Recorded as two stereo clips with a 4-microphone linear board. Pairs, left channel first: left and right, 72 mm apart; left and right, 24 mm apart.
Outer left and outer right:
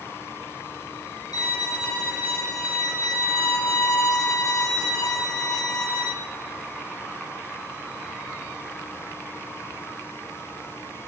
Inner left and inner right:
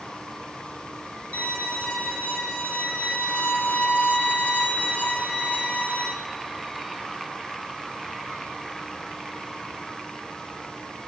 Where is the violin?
85° left, 4 m.